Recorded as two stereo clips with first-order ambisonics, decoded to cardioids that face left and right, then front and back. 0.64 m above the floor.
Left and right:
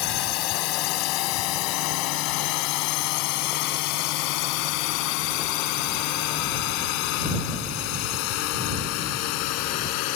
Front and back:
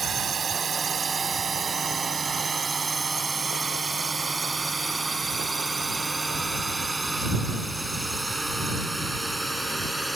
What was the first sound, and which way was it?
A drone, 110° left.